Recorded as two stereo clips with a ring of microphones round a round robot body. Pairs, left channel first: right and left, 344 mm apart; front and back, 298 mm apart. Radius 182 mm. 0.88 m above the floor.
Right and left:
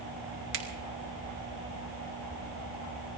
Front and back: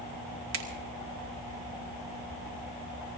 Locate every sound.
0.5 s a finger snap: 145° left, 2.5 m